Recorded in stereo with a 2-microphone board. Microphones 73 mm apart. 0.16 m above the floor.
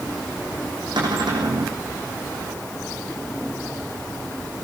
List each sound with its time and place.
1.0 s a cupboard door: 80° right, 8 m